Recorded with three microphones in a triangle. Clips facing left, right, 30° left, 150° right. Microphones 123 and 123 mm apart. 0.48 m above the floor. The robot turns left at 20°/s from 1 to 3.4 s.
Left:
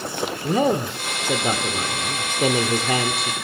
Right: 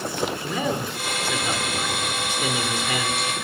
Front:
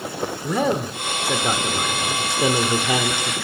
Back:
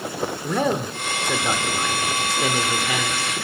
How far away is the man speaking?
About 1.1 m.